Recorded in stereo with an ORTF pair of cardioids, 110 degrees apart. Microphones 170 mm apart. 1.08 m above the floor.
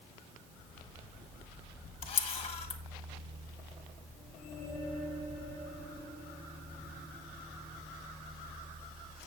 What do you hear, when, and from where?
2.0 s a camera shutter: 35° left, 1.7 m